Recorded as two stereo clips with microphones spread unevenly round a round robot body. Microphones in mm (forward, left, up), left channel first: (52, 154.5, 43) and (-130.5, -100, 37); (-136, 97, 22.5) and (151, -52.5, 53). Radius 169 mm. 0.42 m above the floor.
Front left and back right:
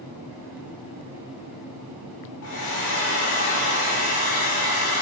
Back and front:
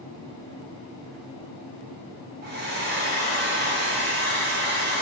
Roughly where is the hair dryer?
Ahead left.